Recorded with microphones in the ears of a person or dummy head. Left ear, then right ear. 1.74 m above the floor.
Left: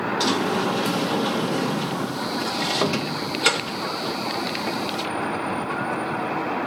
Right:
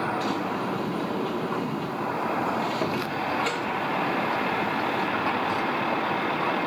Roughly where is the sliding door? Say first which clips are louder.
Left 6 dB; left.